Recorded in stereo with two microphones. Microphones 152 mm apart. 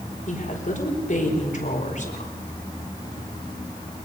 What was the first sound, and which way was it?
A woman speaking, 55° left (ahead or behind).